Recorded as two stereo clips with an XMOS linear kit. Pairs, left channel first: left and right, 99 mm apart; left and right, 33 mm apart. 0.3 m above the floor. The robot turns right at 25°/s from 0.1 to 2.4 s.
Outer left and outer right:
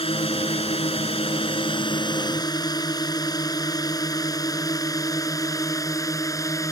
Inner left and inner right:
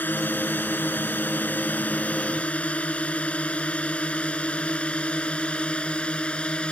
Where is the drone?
65° left (ahead or behind); by 6.7 s 30° left (ahead or behind).